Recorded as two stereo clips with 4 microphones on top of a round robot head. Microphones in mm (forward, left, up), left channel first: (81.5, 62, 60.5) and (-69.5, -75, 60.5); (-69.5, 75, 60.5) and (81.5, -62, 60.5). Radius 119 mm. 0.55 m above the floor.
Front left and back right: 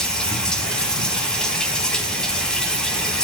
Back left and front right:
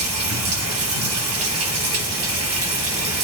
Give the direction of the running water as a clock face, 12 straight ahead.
1 o'clock.